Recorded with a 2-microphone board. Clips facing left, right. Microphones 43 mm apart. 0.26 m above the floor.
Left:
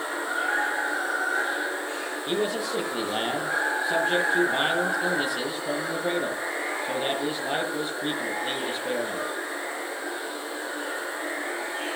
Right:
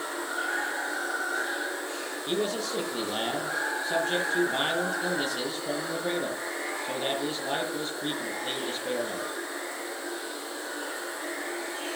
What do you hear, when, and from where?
0.0 s running water: 25° left (ahead or behind), 8 m
2.3 s a man speaking: 15° left (ahead or behind), 7.5 m